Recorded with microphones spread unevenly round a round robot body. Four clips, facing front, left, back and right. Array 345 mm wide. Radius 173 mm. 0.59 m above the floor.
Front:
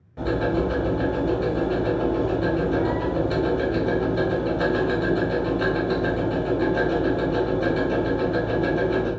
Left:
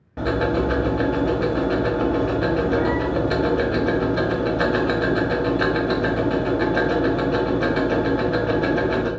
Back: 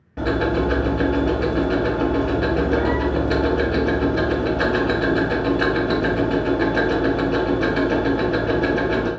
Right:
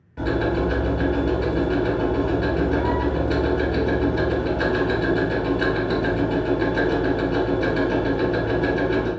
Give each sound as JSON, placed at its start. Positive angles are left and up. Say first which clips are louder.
{"t": 0.2, "sound": "ticking", "louder": "left 1 dB, back 3 dB", "azimuth_deg": 125, "distance_m": 1.3}